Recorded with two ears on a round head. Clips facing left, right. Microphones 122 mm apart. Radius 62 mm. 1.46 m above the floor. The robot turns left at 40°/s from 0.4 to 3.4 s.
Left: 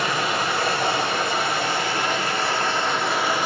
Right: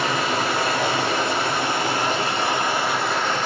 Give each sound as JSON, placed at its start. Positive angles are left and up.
{"t": 0.0, "sound": "running water", "azimuth_deg": -75, "distance_m": 1.7}